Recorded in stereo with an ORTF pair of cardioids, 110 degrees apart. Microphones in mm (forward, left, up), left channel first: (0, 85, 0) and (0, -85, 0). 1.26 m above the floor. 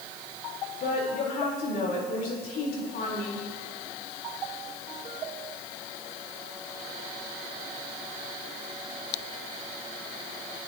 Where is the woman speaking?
60° left, 4 m.